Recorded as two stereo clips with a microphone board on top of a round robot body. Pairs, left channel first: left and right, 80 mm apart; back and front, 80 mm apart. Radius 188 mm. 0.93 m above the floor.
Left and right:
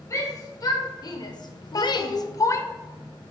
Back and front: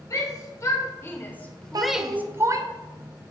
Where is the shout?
135° left, 2 m; by 2.7 s 35° left, 1.0 m.